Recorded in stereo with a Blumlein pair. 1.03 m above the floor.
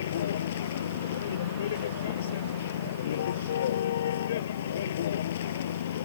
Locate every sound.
0.0 s a vehicle: 60° left